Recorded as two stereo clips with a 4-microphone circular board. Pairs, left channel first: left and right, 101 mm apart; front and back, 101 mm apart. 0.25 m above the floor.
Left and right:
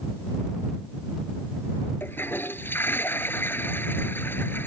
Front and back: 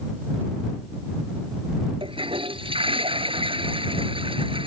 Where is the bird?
No bird in this recording.